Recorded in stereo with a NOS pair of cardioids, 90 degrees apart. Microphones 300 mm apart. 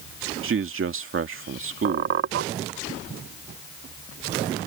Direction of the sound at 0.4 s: 45° right.